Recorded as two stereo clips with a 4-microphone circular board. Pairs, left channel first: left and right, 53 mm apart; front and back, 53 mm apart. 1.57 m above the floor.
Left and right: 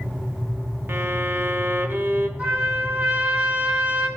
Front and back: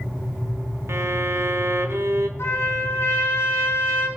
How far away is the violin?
About 1.0 m.